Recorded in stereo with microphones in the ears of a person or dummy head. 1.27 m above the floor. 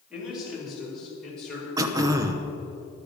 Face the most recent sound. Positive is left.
turn(degrees=-20)  # may be behind; listen again after turning